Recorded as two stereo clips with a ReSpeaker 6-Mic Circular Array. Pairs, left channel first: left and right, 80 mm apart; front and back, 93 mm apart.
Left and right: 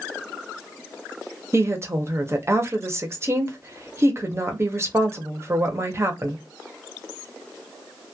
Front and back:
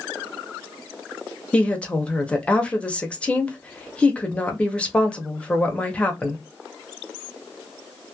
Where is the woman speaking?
65° right, 0.6 m.